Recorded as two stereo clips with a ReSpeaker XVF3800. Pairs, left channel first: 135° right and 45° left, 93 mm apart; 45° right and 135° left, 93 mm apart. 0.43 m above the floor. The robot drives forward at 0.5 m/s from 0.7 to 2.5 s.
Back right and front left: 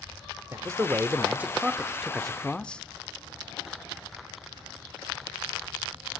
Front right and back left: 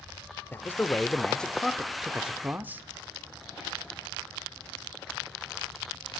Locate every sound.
0.5 s a man speaking: 5° left, 1.0 m; by 2.8 s 165° left, 0.8 m